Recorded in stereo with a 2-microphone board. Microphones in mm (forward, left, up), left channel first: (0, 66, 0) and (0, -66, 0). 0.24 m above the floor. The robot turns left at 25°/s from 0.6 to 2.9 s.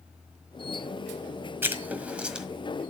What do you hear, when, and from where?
1.6 s writing: 15° right (ahead or behind), 1.6 m; by 2.5 s 5° right (ahead or behind), 1.6 m